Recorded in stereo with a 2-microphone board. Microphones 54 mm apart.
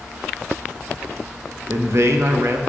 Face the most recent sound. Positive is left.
turn(degrees=-55)  # may be behind; listen again after turning